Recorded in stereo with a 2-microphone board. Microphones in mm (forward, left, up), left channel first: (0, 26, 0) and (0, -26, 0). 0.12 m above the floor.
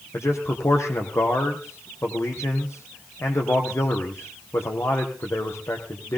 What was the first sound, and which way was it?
A man speaking, 65° left (ahead or behind).